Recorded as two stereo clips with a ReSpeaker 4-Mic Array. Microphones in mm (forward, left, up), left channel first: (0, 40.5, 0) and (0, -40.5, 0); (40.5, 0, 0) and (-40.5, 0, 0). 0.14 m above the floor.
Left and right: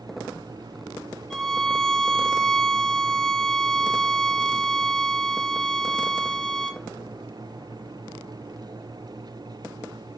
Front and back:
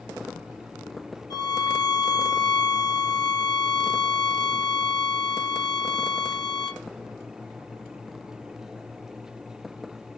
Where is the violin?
5° left, 0.8 m.